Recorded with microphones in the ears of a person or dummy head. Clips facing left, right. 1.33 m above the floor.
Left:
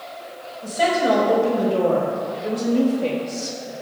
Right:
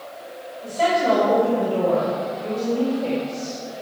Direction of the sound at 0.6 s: 25° left (ahead or behind).